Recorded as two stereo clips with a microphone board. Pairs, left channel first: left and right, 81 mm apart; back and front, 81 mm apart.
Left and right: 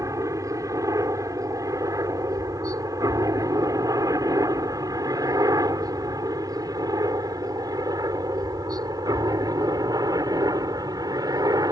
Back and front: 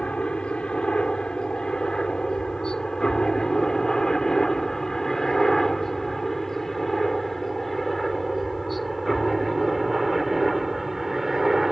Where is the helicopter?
110° right; by 11.7 s 85° right.